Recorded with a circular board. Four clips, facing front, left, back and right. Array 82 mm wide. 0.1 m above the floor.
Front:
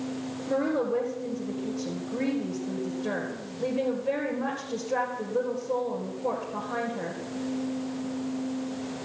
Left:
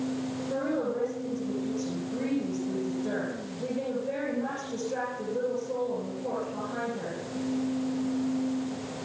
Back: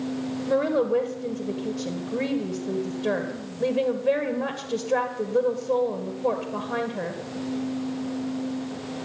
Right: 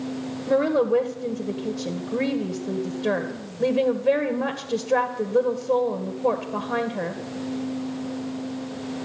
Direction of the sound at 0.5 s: 110° right.